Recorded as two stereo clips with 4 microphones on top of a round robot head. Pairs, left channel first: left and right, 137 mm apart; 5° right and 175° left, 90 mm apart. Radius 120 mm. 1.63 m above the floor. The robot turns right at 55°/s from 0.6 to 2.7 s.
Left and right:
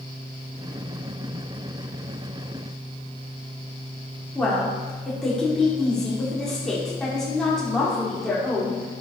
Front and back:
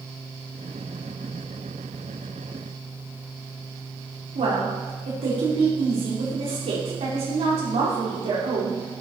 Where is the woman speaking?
175° left, 5.5 m.